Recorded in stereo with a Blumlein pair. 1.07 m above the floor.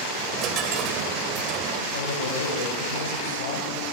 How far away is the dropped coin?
About 2.5 m.